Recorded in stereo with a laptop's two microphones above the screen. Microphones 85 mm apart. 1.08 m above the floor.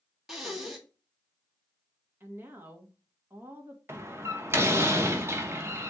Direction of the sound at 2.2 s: 25° right (ahead or behind).